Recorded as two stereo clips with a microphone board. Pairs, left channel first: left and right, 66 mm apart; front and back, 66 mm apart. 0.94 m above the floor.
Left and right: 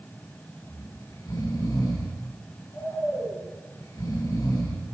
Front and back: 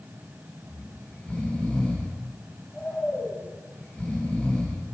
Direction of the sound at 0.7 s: 75° left.